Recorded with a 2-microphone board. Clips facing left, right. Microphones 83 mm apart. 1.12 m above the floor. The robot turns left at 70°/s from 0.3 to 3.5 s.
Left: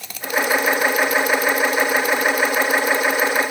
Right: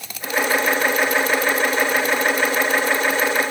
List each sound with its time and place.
Only background noise.